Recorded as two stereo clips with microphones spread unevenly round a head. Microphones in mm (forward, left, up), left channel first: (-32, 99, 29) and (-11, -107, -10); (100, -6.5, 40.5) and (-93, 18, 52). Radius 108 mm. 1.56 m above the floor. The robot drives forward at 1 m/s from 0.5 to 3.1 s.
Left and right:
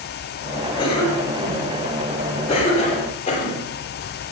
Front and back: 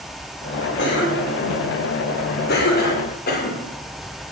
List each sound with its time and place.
0.8 s a cough: 25° left, 7.5 m; by 3.7 s 35° left, 5.5 m